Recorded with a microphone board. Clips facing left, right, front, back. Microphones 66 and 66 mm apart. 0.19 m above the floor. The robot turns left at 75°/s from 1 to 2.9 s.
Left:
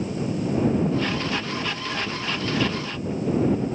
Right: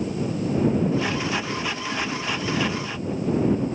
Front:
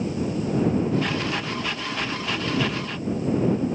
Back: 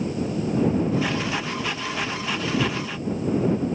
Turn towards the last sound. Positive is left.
No sound to turn to.